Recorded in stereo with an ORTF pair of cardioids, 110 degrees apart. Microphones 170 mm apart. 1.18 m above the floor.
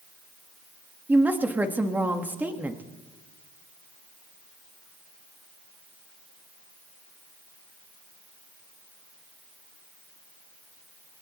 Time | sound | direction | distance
1.1 | a woman speaking | 10° right | 1.5 m